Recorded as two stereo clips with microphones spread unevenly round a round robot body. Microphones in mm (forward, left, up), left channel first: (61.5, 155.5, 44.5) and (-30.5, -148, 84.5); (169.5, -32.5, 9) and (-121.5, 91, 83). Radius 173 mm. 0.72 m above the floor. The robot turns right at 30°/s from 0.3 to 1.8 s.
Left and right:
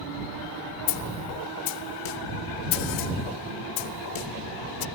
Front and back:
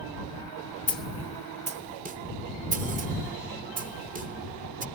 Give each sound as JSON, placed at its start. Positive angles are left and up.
{"t": 0.9, "sound": "a snare drum", "azimuth_deg": 60}